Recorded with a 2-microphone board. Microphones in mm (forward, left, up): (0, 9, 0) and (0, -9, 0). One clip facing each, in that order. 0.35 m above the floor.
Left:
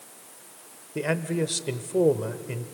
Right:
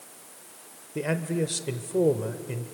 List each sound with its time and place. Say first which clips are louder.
0.9 s a man speaking: left 1 dB; 10° left (ahead or behind), 1.0 m